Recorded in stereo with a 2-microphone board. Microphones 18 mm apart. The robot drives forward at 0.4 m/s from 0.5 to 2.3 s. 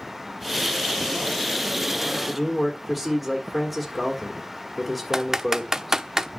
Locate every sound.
2.3 s a man speaking: 15° right (ahead or behind), 1.7 m
5.1 s typing on a keyboard: 30° right (ahead or behind), 0.8 m